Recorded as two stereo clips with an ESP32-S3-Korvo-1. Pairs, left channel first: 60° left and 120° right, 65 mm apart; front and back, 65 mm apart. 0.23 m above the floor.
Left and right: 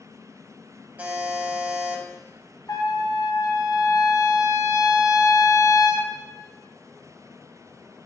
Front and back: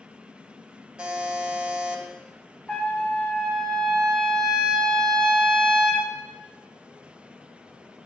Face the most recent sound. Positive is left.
turn(degrees=80)